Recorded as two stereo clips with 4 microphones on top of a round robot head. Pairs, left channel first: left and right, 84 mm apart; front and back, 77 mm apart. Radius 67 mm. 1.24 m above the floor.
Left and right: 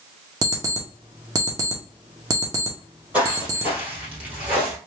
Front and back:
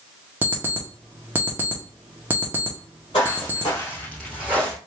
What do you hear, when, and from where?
0.4 s an alarm clock: 115° right, 0.5 m
3.1 s footsteps: 25° right, 1.9 m; by 4.8 s 170° right, 1.3 m